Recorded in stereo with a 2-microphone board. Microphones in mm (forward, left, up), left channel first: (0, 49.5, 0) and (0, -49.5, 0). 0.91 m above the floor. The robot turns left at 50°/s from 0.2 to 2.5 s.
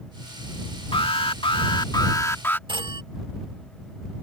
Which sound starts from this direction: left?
An alarm, at 0.9 s.